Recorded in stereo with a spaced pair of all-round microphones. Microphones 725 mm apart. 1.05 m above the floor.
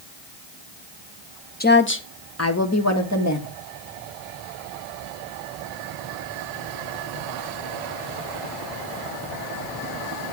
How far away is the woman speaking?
About 0.9 m.